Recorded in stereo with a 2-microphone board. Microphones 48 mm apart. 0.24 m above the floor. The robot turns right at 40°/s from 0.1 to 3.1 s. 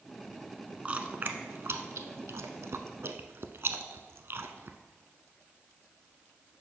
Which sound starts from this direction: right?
Chewing, at 0.8 s.